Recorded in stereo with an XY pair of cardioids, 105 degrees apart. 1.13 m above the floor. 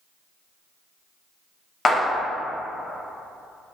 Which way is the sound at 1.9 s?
30° left.